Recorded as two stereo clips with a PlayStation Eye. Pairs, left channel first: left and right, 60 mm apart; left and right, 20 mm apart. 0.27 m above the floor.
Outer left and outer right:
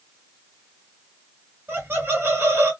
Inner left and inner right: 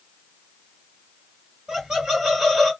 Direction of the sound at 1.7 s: 40° right (ahead or behind).